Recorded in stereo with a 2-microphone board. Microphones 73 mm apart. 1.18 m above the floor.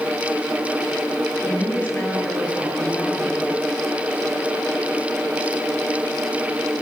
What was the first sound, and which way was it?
A woman speaking, 20° left (ahead or behind).